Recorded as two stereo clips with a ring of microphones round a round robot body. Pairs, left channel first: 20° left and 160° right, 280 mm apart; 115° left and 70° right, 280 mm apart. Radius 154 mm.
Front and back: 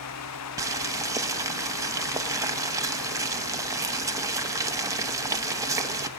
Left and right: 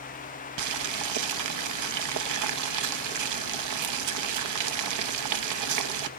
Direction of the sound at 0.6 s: 80° right.